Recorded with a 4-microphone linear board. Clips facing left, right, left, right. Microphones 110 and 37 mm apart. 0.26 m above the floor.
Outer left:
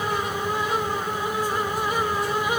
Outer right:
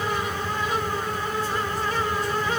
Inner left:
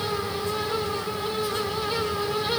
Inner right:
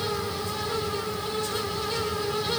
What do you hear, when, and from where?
Only background noise.